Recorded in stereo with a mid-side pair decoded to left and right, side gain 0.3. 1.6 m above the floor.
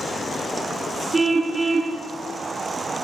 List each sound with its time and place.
1.1 s a car horn: 45° right, 6 m